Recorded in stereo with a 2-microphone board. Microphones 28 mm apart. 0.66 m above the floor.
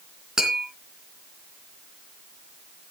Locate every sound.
0.4 s tapping: 20° right (ahead or behind), 3 m